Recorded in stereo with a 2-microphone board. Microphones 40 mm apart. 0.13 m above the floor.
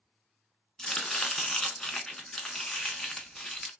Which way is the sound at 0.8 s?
20° left (ahead or behind).